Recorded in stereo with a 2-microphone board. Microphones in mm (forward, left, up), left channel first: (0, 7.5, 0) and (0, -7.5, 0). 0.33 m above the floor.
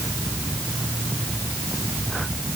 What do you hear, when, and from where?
Only background noise.